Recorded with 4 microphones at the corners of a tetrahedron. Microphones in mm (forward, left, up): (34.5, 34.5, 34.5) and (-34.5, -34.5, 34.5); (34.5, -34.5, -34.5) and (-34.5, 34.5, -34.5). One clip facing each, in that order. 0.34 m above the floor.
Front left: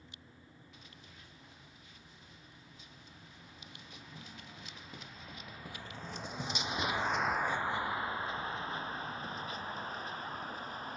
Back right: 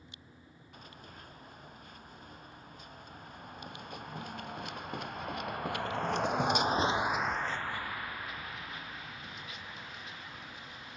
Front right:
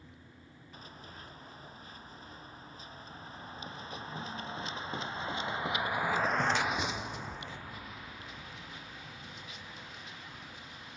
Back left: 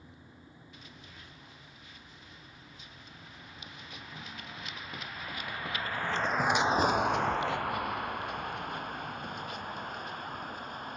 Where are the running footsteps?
95° right; by 11.0 s 95° left.